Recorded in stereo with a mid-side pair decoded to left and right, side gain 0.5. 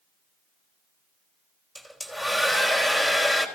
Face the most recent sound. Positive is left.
turn(degrees=20)